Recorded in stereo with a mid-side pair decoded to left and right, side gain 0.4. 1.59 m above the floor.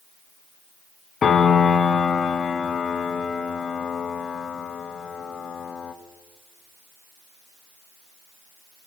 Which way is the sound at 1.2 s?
50° left.